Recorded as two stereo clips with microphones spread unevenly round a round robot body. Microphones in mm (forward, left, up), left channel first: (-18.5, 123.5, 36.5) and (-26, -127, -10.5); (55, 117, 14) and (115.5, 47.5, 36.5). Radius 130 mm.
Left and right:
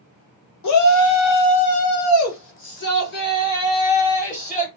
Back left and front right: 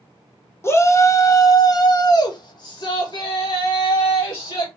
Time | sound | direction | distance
0.6 | a shout | 85° left | 1.4 m